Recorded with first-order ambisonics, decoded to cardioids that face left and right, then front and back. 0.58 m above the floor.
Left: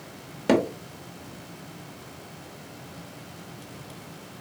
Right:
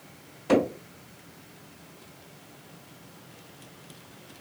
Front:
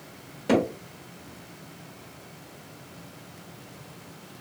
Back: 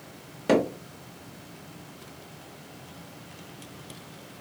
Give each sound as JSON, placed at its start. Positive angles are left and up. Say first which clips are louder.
{"t": 0.5, "sound": "hammering", "louder": "left 1 dB, back 1 dB", "azimuth_deg": 105, "distance_m": 1.2}